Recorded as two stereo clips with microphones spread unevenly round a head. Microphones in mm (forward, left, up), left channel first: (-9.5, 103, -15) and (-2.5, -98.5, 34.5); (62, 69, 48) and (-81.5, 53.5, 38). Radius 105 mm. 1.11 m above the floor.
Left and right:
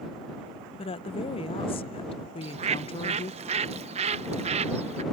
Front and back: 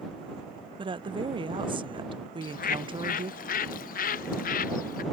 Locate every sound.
0.8 s a woman speaking: 140° left
2.4 s a bird: 20° right